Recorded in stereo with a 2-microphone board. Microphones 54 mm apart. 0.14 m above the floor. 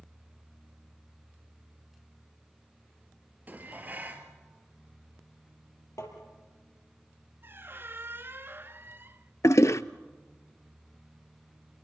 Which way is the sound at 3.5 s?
35° right (ahead or behind).